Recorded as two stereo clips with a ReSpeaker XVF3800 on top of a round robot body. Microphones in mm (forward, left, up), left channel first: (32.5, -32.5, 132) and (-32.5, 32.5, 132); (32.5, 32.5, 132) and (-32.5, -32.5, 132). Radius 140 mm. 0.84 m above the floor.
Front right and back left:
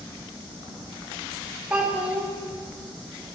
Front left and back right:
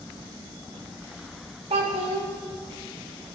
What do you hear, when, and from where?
1.7 s a child speaking: 150° right, 2 m